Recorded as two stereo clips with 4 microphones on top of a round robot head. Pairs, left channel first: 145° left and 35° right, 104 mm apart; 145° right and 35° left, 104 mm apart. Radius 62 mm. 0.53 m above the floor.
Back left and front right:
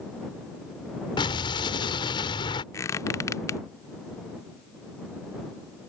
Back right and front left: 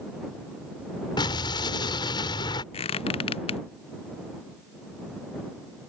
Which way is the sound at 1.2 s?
Straight behind.